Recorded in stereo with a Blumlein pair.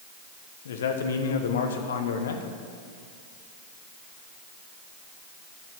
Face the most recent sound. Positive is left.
turn(degrees=60)